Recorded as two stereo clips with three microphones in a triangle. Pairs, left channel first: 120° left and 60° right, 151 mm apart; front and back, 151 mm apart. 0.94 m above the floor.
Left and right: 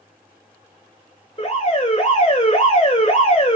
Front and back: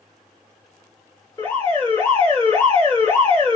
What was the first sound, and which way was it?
An alarm, 70° left.